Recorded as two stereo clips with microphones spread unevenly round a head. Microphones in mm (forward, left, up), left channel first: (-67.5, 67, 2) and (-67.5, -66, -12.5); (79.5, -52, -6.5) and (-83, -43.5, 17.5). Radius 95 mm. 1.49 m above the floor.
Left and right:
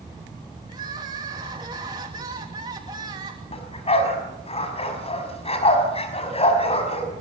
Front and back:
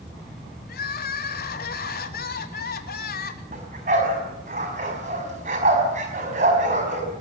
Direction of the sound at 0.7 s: 20° right.